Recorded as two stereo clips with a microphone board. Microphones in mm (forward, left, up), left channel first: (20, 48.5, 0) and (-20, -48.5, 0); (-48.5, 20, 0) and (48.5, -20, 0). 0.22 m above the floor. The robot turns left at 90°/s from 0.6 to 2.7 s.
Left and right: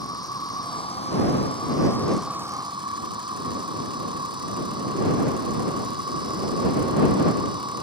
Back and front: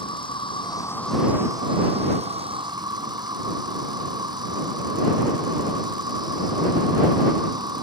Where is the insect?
120° left; by 7.8 s 70° right.